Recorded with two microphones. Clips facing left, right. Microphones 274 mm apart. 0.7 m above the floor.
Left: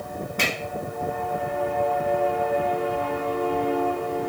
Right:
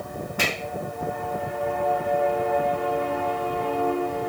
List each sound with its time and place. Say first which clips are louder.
0.4 s a finger snap: even; 10° right (ahead or behind), 1.9 m